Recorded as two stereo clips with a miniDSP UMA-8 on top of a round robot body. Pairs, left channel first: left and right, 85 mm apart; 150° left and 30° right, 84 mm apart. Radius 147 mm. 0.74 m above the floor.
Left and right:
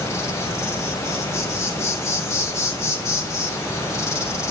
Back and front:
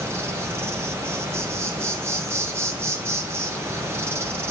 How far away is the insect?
About 2.5 m.